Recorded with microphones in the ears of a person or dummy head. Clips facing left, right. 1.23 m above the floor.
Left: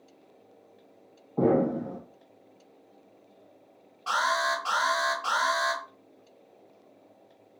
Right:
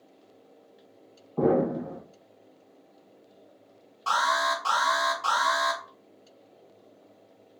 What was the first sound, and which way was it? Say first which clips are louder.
An explosion: even; 5° left (ahead or behind).